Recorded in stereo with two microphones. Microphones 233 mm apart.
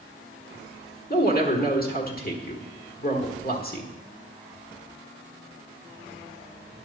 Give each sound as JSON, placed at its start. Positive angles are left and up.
{"t": 1.1, "sound": "a woman speaking", "side_deg": 40, "distance_m": 1.4}